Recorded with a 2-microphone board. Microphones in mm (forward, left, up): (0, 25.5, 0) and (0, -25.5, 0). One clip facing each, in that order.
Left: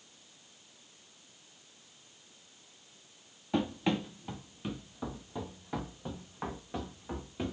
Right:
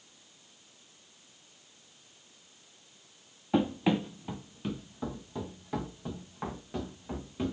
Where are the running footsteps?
15° right (ahead or behind), 0.6 m; by 7.5 s 10° left (ahead or behind), 1.9 m.